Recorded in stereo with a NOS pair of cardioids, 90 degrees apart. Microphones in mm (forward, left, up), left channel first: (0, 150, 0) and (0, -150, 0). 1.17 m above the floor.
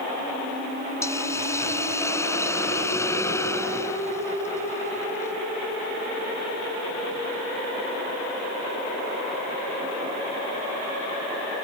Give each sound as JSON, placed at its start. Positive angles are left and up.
{"t": 1.0, "sound": "a hiss", "azimuth_deg": 10}